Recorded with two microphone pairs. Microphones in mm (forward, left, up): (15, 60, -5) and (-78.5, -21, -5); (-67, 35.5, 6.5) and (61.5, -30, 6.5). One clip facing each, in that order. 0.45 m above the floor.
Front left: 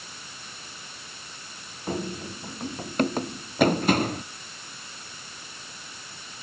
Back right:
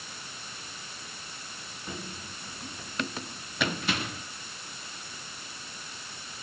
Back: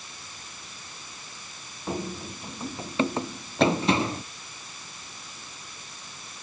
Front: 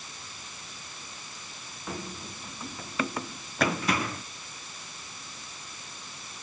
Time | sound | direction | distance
1.9 | running footsteps | 90° left | ?